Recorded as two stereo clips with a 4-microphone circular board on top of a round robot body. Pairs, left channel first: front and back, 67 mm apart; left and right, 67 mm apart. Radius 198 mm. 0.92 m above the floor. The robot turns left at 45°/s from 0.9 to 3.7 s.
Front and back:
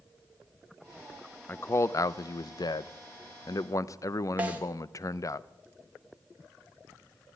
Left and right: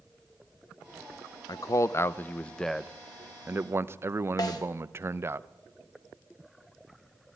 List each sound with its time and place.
1.5 s a man speaking: 60° left, 0.6 m; by 5.4 s 40° right, 0.6 m
4.4 s a snare drum: 110° left, 2.5 m